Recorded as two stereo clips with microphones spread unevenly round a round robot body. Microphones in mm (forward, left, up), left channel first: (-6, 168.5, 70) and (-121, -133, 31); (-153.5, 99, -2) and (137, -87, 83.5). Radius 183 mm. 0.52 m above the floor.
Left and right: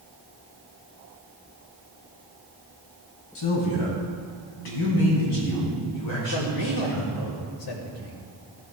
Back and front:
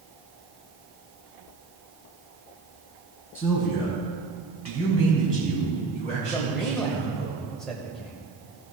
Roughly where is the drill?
I don't hear a drill.